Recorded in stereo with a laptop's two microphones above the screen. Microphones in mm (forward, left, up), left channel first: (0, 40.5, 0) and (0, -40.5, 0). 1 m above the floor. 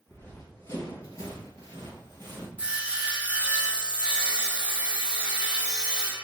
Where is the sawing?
15° right (ahead or behind), 1.6 m.